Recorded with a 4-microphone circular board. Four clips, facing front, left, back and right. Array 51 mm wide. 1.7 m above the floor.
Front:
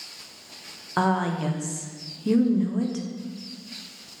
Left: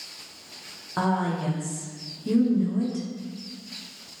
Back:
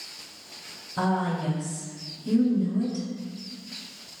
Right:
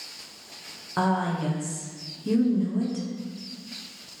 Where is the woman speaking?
Straight ahead, 1.2 m.